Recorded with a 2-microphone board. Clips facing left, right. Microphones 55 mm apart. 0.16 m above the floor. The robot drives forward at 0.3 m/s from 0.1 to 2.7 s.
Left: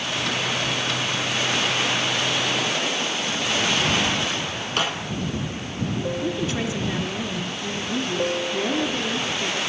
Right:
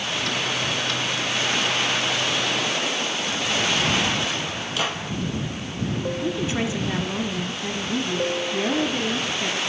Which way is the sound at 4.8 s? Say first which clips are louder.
Left 2 dB; 55° left (ahead or behind).